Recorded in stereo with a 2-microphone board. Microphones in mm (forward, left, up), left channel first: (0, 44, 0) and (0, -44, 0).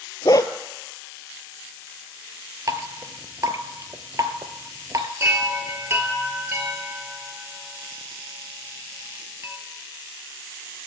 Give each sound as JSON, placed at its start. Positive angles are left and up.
{"t": 0.2, "sound": "a dog barking", "side_deg": 45, "distance_m": 0.5}
{"t": 2.7, "sound": "dripping", "side_deg": -45, "distance_m": 0.6}
{"t": 5.2, "sound": "a chime", "side_deg": -30, "distance_m": 1.2}